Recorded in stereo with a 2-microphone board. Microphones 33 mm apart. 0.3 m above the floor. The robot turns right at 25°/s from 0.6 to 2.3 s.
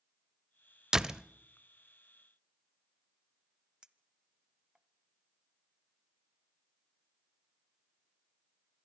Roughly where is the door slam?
Centre.